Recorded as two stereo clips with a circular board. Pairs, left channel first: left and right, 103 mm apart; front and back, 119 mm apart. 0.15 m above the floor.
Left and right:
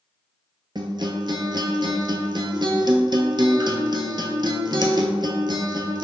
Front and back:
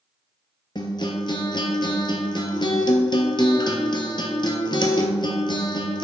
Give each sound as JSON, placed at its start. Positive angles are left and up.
{"t": 0.8, "sound": "a guitar", "azimuth_deg": -45, "distance_m": 0.9}